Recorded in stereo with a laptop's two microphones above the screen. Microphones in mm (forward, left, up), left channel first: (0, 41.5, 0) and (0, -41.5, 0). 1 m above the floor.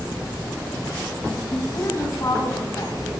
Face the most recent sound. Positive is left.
turn(degrees=40)  # may be behind; listen again after turning